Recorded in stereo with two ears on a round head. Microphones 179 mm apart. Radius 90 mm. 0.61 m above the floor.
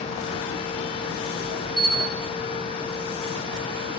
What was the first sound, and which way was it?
A bell, 60° right (ahead or behind).